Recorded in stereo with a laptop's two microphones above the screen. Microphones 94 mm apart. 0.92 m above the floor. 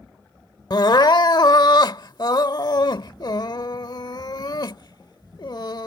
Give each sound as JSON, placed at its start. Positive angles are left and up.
{"t": 0.7, "sound": "crying", "side_deg": 55}